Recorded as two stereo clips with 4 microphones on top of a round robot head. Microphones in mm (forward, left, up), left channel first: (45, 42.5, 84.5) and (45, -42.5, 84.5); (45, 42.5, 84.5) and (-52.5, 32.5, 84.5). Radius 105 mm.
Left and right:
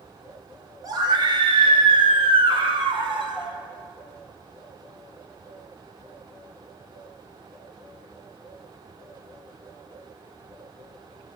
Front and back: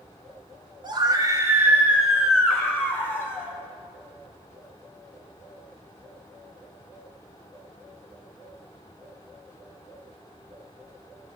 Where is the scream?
135° right, 1.2 m; by 3.6 s 65° right, 2.5 m.